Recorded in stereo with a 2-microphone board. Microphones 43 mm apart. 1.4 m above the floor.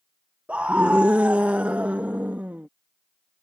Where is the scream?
30° right (ahead or behind); by 2.7 s 40° right (ahead or behind).